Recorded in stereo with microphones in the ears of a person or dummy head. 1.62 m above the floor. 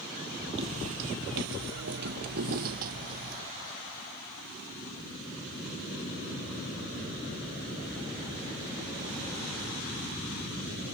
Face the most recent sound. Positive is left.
turn(degrees=-45)  # may be behind; listen again after turning